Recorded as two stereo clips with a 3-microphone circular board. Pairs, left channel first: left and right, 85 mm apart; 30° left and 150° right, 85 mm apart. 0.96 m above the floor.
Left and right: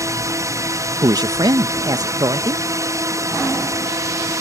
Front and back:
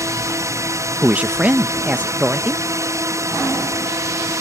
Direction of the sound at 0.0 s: 120° right.